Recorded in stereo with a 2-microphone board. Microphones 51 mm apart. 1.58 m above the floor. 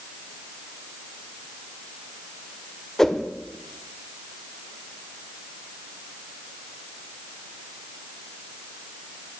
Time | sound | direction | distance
3.0 | a whoosh | 10° left (ahead or behind) | 0.7 m